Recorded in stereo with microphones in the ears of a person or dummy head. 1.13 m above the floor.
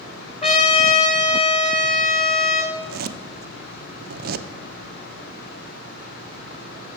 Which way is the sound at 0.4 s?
35° left (ahead or behind).